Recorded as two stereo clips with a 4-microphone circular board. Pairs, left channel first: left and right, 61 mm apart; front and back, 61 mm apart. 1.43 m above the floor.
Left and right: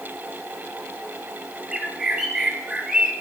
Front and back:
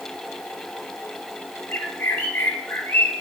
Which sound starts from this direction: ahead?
A bird, at 1.7 s.